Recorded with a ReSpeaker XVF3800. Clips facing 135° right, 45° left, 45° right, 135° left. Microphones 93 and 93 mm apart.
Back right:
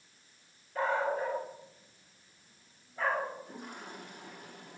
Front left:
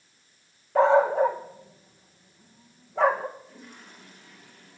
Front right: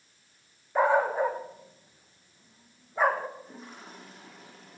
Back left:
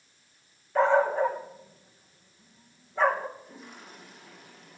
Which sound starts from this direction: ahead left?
A dog barking, at 0.8 s.